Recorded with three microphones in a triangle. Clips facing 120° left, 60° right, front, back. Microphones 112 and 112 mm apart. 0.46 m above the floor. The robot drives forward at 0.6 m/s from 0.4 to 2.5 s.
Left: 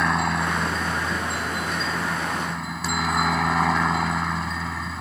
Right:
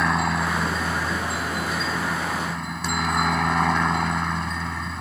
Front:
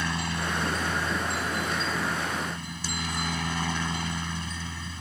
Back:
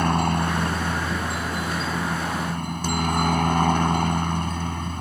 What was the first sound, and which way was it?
A helicopter, 150° right.